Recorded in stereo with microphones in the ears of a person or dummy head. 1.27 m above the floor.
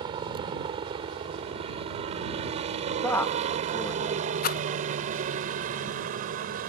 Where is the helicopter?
30° right (ahead or behind); by 6.7 s 45° right (ahead or behind).